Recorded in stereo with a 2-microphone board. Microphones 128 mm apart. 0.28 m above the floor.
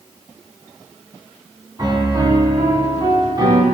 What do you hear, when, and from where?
1.8 s a piano: 35° right (ahead or behind), 2.5 m